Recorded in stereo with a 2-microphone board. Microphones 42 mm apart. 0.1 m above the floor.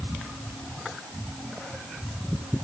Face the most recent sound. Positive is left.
No sound to turn to.